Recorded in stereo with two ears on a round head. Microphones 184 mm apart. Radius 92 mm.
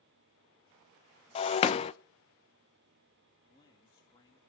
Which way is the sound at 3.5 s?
20° left (ahead or behind).